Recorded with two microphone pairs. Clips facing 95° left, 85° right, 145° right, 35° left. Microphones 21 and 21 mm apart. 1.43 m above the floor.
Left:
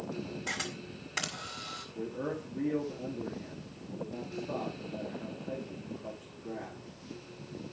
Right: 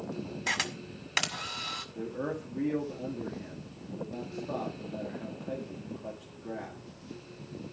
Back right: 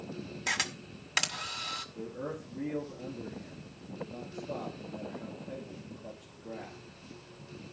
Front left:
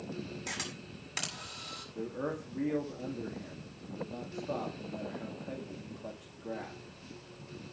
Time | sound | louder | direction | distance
0.5 | a camera shutter | right 8 dB, back right 11 dB | 100° right | 2.0 m
1.9 | a man speaking | left 3 dB, front left 2 dB | 15° right | 2.5 m